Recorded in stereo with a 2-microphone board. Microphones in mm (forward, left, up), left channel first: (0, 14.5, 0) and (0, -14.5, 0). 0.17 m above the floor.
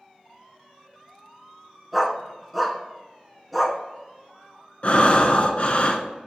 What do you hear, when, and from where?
1.9 s a dog barking: centre (ahead or behind), 0.6 m
4.8 s breathing: 45° left (ahead or behind), 0.6 m